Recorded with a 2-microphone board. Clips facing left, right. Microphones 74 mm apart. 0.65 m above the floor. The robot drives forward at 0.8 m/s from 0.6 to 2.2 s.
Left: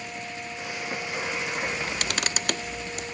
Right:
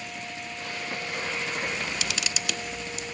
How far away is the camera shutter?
About 0.6 m.